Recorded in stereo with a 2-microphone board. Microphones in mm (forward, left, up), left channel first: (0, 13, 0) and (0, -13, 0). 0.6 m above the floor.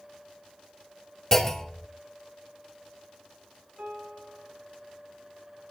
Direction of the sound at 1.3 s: 10° left (ahead or behind).